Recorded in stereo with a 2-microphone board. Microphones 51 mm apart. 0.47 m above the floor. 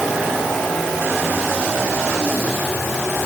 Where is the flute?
I don't hear a flute.